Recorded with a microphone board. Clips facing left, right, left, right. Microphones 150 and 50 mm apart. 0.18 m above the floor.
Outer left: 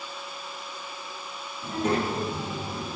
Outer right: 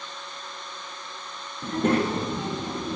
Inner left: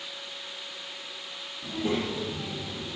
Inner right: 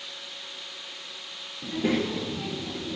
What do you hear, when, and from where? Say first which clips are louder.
1.6 s a child speaking: outer right 3 dB, inner right 3 dB; 55° right (ahead or behind), 2 m; by 3.0 s 70° right (ahead or behind), 2.5 m